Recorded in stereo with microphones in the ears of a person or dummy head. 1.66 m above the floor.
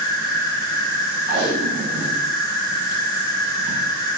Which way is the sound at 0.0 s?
25° left (ahead or behind).